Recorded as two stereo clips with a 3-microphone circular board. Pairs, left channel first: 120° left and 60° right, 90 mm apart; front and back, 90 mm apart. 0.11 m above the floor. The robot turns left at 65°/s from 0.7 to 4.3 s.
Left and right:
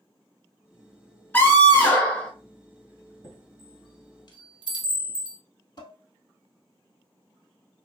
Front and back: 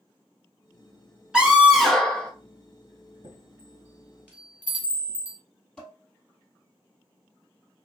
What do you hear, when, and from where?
1.3 s a scream: 120° left, 1.2 m; by 2.3 s 55° left, 1.2 m
3.2 s a chime: straight behind, 1.6 m; by 5.4 s 110° left, 1.6 m
5.8 s dishes clattering: 85° left, 1.6 m